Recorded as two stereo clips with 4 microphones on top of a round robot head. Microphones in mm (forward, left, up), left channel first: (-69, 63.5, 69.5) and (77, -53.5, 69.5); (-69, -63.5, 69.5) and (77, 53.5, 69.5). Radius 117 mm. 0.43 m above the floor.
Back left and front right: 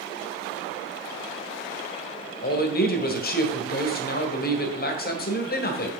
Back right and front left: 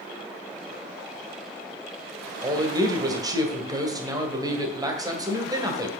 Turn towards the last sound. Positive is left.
turn(degrees=110)